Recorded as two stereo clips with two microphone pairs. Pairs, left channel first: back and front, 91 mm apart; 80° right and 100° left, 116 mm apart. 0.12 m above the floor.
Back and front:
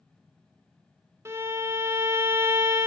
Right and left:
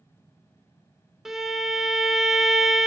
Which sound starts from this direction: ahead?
A violin, at 1.2 s.